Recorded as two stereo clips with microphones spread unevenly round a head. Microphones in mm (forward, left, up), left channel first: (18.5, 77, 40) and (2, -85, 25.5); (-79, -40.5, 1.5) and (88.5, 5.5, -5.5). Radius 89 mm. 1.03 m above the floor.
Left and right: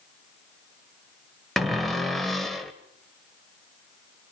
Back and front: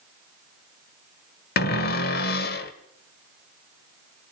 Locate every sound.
1.6 s a cupboard door: 170° left, 1.3 m